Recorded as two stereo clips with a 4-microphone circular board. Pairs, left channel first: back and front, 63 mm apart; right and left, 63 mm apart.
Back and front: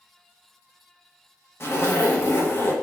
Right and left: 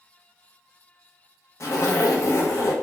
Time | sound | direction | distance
1.6 | a zipper | 130° right | 0.6 m